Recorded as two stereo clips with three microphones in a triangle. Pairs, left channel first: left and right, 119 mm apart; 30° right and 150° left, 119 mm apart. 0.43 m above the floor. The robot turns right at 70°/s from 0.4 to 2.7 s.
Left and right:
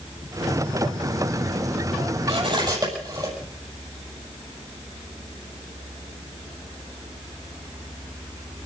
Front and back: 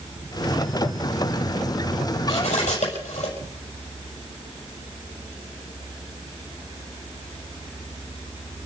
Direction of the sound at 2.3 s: 60° right.